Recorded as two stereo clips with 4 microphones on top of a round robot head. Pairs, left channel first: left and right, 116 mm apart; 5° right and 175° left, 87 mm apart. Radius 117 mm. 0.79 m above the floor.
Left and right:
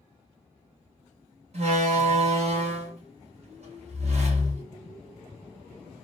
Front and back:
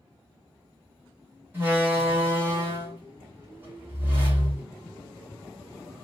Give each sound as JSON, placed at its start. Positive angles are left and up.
{"t": 1.5, "sound": "a door slam", "azimuth_deg": -115, "distance_m": 2.0}